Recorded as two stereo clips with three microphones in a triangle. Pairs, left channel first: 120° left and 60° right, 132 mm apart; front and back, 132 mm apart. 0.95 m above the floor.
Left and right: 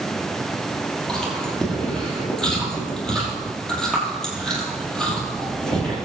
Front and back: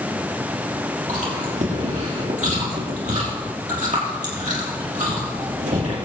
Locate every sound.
1.1 s chewing: 155° right, 5 m